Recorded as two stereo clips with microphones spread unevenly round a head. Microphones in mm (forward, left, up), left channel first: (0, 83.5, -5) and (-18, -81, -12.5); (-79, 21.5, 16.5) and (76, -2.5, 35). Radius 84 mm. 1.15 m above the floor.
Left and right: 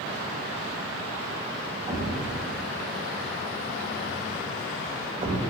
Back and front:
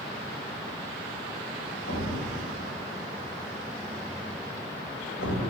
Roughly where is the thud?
Behind.